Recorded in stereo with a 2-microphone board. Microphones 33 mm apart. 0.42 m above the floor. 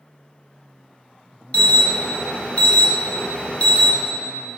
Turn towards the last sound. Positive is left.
turn(degrees=40)  # may be behind; listen again after turning